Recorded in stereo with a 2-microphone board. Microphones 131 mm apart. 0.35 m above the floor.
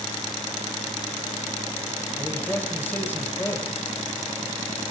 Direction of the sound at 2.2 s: 15° left (ahead or behind).